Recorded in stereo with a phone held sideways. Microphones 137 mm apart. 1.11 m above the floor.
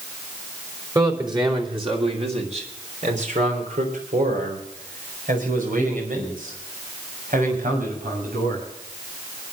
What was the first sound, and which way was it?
A man speaking, 25° right (ahead or behind).